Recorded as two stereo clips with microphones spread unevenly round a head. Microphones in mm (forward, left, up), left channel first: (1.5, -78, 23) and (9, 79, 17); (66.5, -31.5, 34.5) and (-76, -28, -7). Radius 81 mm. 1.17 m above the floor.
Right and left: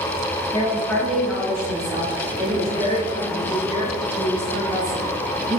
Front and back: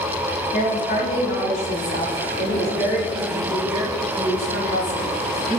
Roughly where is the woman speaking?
Ahead right.